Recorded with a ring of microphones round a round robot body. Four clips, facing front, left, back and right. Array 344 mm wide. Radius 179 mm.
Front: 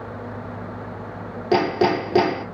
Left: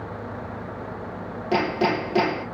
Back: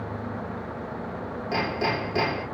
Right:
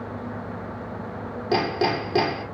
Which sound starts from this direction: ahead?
Hammering, at 1.5 s.